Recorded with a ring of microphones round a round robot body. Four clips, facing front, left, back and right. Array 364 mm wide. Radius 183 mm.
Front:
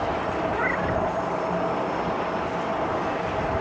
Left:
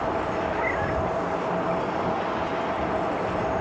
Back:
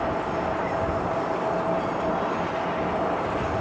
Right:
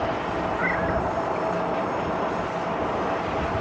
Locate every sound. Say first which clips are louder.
0.5 s a cat meowing: right 1 dB, front 1 dB; 15° left